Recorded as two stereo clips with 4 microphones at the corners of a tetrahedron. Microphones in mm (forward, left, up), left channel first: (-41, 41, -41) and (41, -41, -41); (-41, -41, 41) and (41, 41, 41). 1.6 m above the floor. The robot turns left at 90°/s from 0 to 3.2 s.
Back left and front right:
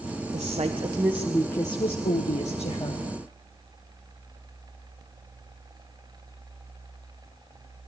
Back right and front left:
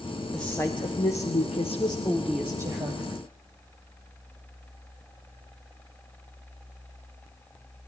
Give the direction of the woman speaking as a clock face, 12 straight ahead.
2 o'clock.